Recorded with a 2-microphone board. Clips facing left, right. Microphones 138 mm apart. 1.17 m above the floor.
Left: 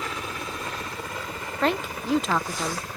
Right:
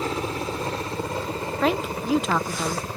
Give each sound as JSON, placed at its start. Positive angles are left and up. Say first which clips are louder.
{"t": 0.0, "sound": "a helicopter", "louder": "right 6 dB", "side_deg": -30}
{"t": 1.6, "sound": "a woman speaking", "louder": "right 1 dB", "side_deg": -5}